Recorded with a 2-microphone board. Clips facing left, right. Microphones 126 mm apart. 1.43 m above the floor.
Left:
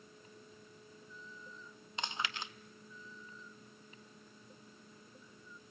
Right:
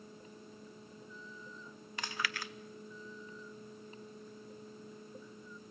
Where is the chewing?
20° left (ahead or behind), 0.7 m.